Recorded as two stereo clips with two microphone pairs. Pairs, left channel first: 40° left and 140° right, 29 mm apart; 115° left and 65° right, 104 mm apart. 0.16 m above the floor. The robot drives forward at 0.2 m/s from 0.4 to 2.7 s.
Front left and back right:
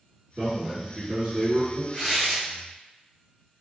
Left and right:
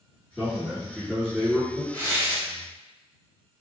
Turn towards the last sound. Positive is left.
turn(degrees=180)